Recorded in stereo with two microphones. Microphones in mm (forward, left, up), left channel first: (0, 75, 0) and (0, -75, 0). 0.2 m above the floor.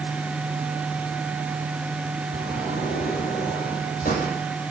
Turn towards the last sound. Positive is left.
turn(degrees=75)  # may be behind; listen again after turning